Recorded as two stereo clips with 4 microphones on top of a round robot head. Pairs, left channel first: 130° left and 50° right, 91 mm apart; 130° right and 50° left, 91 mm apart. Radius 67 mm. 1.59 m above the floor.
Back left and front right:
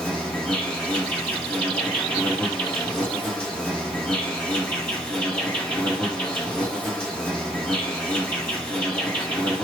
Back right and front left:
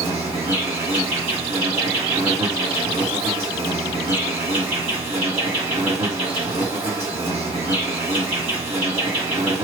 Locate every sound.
0.0 s an insect: 60° left, 2.5 m